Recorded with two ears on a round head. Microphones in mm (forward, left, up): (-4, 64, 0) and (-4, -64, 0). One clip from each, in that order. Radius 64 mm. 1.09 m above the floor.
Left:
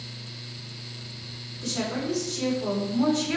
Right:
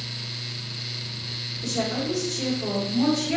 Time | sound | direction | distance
1.6 | a woman speaking | 70° left (ahead or behind) | 3.5 m